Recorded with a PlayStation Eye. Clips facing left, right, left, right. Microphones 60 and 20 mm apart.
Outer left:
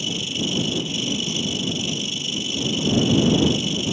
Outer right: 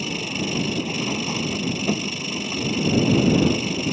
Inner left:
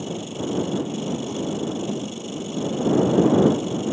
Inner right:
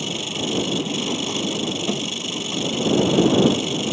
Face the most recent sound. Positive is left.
turn(degrees=-50)  # may be behind; listen again after turning